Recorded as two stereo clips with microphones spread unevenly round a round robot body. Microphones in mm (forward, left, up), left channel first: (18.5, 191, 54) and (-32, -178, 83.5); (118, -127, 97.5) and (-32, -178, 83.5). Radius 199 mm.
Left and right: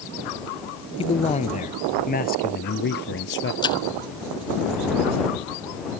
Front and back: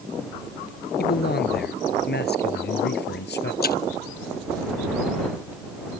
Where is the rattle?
No rattle in this recording.